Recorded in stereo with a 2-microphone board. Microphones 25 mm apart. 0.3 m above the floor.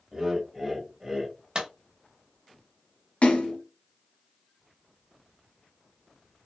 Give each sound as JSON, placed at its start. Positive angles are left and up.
{"t": 0.1, "sound": "laughter", "side_deg": -10, "distance_m": 1.2}
{"t": 1.6, "sound": "a clap", "side_deg": -35, "distance_m": 0.8}
{"t": 3.2, "sound": "a splash", "side_deg": 60, "distance_m": 1.1}